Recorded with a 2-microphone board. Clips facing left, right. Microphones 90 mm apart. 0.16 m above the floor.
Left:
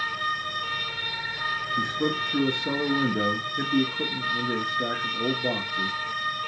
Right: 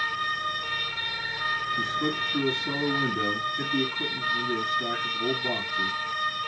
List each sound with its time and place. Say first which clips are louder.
1.8 s a man speaking: left 2 dB; 65° left (ahead or behind), 2 m